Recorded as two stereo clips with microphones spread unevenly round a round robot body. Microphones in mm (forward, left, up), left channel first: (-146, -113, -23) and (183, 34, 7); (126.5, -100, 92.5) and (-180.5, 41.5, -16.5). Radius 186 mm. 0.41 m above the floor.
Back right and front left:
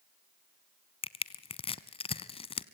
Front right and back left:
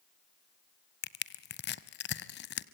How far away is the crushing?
About 0.6 m.